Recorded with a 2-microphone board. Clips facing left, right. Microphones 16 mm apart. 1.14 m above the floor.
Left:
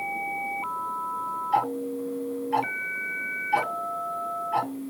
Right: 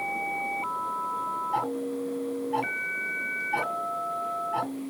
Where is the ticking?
60° left (ahead or behind), 0.7 m.